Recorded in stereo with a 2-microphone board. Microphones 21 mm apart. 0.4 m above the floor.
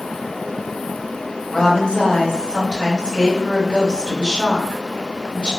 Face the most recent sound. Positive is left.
turn(degrees=55)  # may be behind; listen again after turning